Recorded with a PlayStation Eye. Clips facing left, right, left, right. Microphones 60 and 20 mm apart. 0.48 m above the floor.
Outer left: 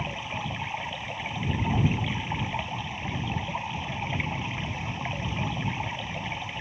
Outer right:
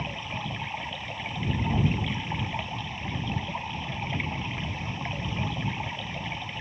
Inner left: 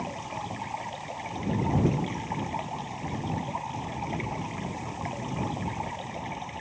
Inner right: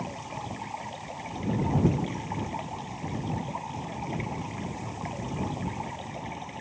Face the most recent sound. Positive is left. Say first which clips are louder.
# outer left 1 dB, inner left 2 dB
turn(degrees=5)  # may be behind; listen again after turning